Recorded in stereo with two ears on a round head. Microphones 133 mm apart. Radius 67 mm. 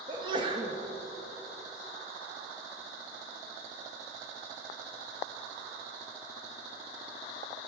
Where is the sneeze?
30° right (ahead or behind), 1.0 m.